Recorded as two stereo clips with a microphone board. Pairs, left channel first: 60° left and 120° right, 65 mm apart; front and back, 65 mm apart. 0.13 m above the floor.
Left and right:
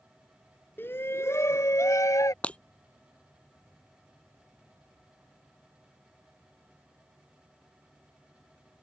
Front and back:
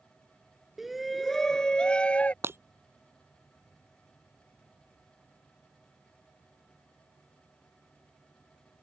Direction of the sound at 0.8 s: 95° left.